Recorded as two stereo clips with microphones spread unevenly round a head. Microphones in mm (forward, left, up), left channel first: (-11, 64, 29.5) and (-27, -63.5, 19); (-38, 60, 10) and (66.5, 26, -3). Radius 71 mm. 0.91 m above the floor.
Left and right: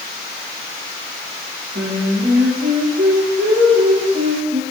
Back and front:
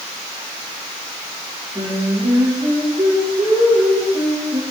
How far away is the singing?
About 4 m.